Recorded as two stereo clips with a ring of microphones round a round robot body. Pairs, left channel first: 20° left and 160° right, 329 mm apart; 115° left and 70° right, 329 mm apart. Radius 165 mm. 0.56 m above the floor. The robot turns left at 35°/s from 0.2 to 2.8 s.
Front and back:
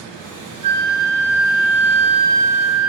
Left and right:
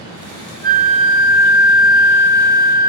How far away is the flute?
About 1.3 m.